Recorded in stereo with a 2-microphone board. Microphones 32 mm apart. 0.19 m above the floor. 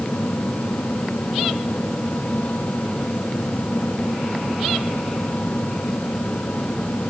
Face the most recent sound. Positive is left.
No sound to turn to.